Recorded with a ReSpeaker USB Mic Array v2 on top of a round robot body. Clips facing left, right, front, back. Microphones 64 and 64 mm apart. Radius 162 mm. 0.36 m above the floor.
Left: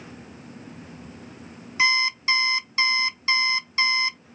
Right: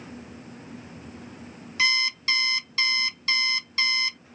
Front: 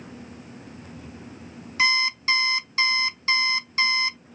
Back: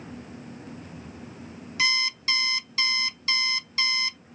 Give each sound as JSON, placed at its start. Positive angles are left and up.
{"t": 1.8, "sound": "an alarm clock", "azimuth_deg": 35, "distance_m": 0.5}